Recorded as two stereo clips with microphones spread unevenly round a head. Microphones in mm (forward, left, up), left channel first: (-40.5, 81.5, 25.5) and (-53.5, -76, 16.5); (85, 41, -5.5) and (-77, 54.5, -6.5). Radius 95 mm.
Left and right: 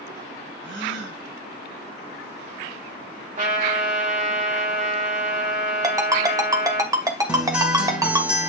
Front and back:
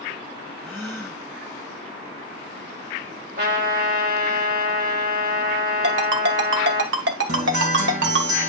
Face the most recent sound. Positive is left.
turn(degrees=-175)